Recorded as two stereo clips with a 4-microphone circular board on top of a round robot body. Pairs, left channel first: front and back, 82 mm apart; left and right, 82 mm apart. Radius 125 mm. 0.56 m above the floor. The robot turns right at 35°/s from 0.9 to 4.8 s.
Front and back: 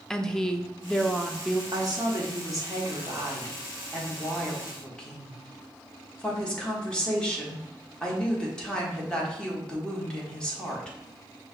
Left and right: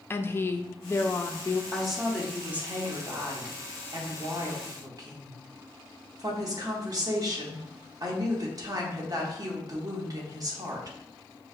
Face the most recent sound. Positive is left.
turn(degrees=-75)